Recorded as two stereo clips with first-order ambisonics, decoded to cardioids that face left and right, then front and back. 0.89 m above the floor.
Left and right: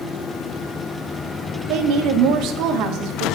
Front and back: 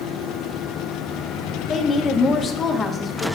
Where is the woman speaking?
65° right, 1.0 m.